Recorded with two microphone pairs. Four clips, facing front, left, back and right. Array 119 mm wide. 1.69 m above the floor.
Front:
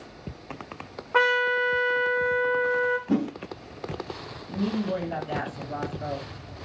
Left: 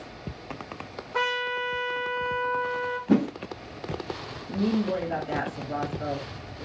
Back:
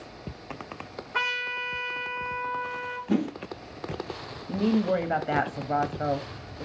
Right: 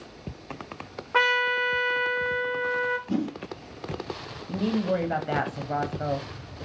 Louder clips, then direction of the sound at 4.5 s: Even, back 4 dB; 155° right.